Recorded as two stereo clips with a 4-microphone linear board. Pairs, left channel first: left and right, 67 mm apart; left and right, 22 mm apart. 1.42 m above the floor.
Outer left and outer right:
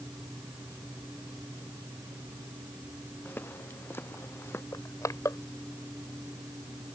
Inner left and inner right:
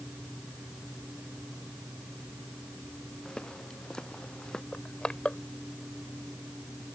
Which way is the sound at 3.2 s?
30° left (ahead or behind).